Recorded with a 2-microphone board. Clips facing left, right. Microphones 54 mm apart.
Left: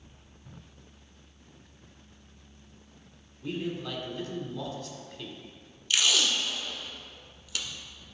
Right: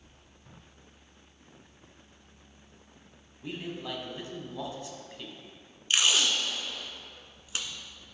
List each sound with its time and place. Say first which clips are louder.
3.4 s a man speaking: left 4 dB; 25° right (ahead or behind), 1.6 m
5.9 s tape being pulled: even; 30° right (ahead or behind), 1.0 m